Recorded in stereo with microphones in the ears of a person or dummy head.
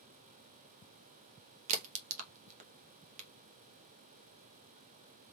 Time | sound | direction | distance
1.7 | a crack | 40° right (ahead or behind) | 0.9 m